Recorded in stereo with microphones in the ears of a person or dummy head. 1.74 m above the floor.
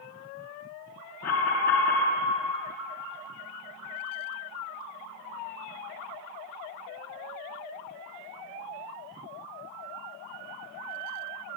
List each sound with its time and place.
1.2 s an alarm: 45° left (ahead or behind), 3 m